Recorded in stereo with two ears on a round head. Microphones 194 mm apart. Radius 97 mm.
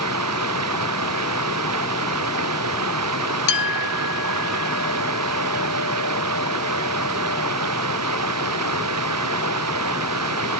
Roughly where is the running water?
Right.